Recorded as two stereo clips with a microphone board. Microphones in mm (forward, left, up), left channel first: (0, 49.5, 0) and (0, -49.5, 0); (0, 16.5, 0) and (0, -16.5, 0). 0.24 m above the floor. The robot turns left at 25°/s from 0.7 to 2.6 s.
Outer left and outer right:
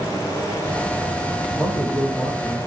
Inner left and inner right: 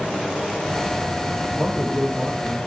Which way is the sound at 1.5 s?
15° left (ahead or behind).